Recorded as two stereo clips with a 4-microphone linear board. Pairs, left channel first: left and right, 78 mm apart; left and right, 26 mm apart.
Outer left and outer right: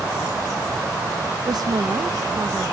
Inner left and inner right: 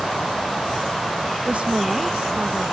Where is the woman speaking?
55° right (ahead or behind); by 2.7 s 40° right (ahead or behind).